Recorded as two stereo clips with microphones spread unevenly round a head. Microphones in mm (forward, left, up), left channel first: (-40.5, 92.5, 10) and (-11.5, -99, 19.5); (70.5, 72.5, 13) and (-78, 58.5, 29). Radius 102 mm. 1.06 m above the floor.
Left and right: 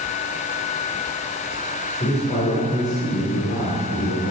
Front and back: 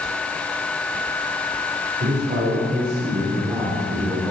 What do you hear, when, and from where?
2.0 s a man speaking: 160° left, 3 m; by 4.3 s 110° left, 3 m